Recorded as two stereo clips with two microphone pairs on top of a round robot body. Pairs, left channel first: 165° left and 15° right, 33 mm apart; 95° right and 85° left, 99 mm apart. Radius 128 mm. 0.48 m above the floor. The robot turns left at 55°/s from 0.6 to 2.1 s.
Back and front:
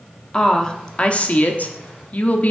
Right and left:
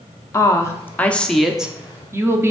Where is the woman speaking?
135° right, 1.0 m; by 2.5 s 145° left, 1.0 m.